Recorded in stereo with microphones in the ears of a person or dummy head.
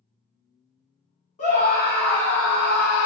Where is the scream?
40° left (ahead or behind), 1.0 m; by 3.1 s 80° left, 0.6 m.